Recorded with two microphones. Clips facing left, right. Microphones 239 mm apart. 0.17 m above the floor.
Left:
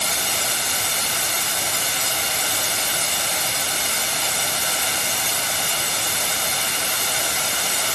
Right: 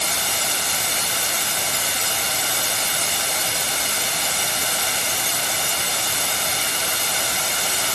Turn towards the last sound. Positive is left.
No sound to turn to.